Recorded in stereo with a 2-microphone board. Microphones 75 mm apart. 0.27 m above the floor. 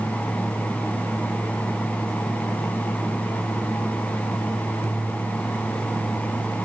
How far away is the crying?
I don't hear crying.